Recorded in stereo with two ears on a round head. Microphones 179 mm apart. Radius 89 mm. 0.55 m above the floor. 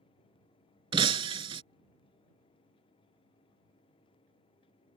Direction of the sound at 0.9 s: 25° right (ahead or behind).